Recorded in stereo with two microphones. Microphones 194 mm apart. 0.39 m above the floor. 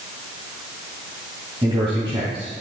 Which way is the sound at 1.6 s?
25° right (ahead or behind).